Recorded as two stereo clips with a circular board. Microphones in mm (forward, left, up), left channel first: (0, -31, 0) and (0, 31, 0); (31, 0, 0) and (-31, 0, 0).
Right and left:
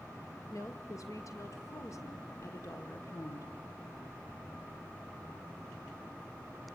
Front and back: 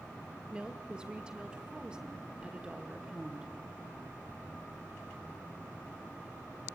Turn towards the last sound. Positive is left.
turn(degrees=-110)